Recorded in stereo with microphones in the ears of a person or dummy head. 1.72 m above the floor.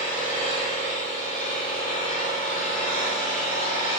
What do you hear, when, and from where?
0.0 s an engine running: 40° left (ahead or behind), 3 m